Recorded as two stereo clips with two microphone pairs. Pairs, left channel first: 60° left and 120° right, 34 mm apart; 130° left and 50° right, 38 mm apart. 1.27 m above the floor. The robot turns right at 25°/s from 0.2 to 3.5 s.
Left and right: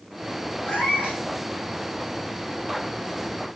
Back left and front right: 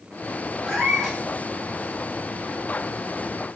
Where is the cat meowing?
35° left, 3 m; by 1.2 s 50° left, 3 m.